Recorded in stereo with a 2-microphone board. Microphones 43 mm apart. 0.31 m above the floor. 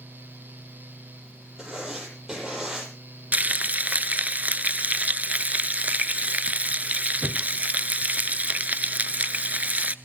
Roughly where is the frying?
Right.